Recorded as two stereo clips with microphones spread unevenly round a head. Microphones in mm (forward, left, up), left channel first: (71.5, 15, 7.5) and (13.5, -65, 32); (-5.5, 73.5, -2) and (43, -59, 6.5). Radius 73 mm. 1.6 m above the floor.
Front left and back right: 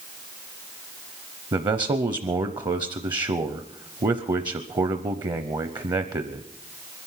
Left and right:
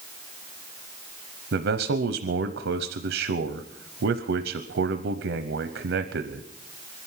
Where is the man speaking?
75° right, 0.7 m.